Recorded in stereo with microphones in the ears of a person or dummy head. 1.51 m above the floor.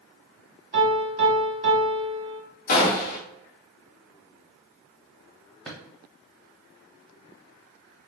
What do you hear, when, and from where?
0.7 s a piano: 30° right (ahead or behind), 1.3 m
2.7 s a gunshot: 50° left (ahead or behind), 1.2 m
5.7 s a drawer: 5° right (ahead or behind), 0.9 m